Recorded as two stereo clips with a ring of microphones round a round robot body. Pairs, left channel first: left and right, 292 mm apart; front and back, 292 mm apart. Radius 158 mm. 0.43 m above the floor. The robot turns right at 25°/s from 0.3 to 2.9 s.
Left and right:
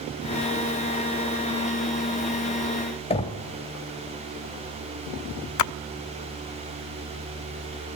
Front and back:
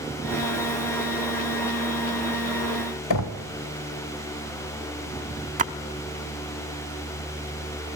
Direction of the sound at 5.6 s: 115° left.